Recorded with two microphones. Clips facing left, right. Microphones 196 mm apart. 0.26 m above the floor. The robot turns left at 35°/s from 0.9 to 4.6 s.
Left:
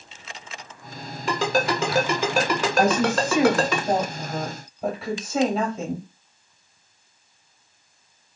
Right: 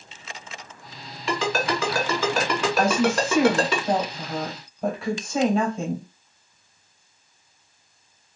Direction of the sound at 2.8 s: 20° left (ahead or behind).